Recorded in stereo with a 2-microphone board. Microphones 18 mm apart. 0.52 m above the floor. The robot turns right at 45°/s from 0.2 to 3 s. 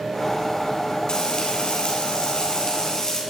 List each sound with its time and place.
1.1 s frying: 60° left, 4 m; by 3.2 s 145° left, 4 m